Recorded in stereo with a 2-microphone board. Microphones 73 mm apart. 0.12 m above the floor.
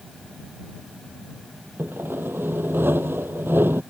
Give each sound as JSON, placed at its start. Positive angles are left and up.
{"t": 1.8, "sound": "sawing", "side_deg": -35}